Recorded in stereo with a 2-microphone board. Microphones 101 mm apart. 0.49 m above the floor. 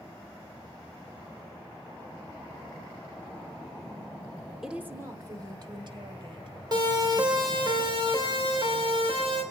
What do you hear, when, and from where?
4.6 s a woman speaking: 5° right (ahead or behind), 1.0 m; by 7.7 s 65° right (ahead or behind), 4 m
6.7 s a siren: 45° right (ahead or behind), 2.5 m; by 9.4 s 60° right (ahead or behind), 5 m